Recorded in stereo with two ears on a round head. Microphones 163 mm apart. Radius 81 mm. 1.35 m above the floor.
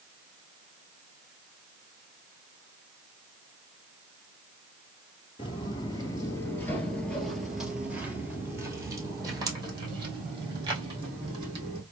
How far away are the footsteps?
About 1.5 m.